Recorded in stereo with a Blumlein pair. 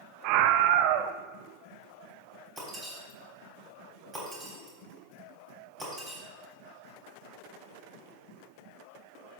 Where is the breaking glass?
20° right, 3 m.